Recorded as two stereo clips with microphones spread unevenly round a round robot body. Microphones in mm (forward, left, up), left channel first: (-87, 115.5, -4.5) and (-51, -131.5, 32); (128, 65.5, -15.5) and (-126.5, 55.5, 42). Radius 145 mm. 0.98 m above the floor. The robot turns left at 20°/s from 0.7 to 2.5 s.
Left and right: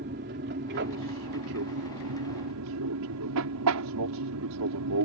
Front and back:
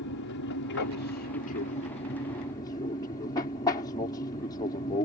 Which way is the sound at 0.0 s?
30° right.